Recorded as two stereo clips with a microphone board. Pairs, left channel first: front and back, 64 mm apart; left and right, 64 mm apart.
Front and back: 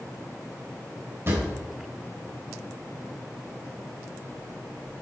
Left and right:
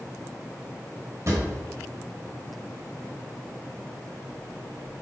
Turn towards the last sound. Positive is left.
turn(degrees=-130)